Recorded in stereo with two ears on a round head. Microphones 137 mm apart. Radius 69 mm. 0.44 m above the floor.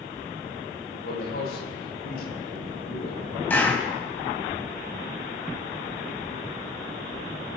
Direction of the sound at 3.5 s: 15° left (ahead or behind).